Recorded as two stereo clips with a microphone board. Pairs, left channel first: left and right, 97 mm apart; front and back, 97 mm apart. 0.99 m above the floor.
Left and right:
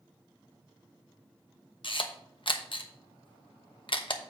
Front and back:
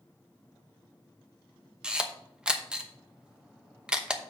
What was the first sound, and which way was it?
A camera shutter, 100° left.